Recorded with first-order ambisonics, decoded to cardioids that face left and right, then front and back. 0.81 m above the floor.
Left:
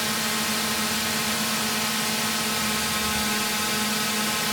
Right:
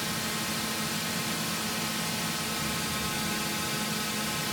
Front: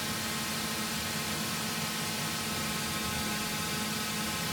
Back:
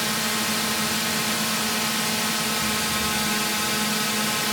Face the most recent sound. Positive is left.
turn(degrees=145)